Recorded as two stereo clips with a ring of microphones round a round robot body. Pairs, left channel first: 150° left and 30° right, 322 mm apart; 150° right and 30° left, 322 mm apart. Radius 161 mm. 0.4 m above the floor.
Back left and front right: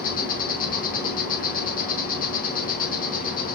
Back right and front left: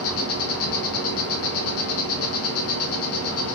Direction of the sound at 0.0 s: 160° right.